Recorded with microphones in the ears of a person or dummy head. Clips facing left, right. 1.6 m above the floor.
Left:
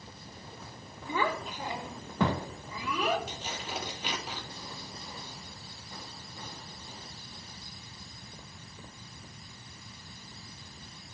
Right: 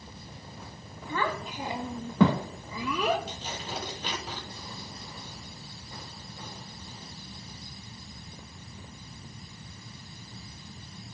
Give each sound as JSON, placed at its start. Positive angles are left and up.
{"t": 1.1, "sound": "a child speaking", "side_deg": 10, "distance_m": 0.8}
{"t": 3.3, "sound": "tearing paper", "side_deg": 10, "distance_m": 3.0}